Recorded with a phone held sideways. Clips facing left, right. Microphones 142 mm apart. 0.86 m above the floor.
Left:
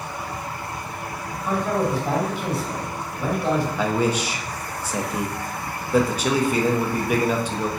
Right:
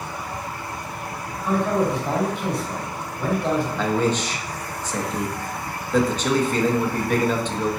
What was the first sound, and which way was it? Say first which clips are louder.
A man speaking: right 2 dB; 5° left (ahead or behind).